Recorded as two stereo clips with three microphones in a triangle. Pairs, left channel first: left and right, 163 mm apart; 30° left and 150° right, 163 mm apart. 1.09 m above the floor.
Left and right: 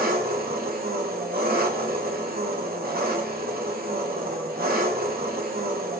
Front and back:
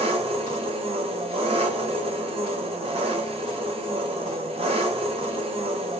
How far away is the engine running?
About 0.7 m.